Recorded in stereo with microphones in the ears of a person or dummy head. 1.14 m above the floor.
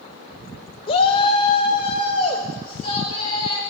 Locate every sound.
0.9 s a shout: 25° left (ahead or behind), 0.7 m